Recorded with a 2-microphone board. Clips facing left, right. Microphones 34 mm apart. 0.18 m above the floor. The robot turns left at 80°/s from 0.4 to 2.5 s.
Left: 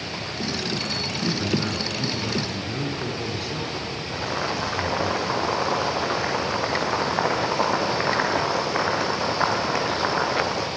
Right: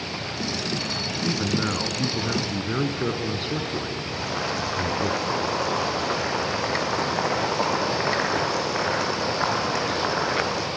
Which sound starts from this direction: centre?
Boiling, at 4.1 s.